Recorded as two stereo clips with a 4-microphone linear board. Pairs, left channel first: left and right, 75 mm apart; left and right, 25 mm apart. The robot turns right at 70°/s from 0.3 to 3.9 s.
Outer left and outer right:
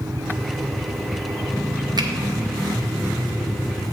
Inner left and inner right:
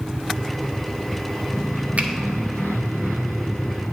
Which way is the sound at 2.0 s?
65° right (ahead or behind).